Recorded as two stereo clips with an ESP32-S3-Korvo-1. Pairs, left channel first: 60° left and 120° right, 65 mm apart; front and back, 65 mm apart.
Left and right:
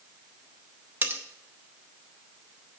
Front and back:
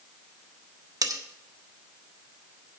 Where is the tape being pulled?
No tape being pulled in this recording.